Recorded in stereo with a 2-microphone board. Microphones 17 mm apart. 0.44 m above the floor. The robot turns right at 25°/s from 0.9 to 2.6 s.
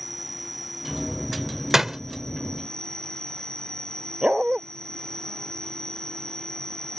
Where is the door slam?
20° right (ahead or behind); by 2.0 s 25° right (ahead or behind).